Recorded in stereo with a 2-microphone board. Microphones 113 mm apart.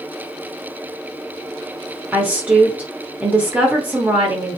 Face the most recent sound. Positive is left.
turn(degrees=-15)  # may be behind; listen again after turning